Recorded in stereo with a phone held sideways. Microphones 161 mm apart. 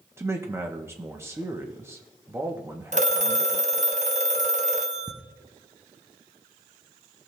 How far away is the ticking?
About 0.7 m.